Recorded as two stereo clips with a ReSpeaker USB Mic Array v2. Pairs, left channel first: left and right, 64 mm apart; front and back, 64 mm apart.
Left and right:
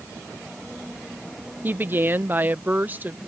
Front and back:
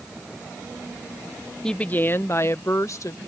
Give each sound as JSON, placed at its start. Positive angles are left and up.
{"t": 1.6, "sound": "a woman speaking", "azimuth_deg": -75}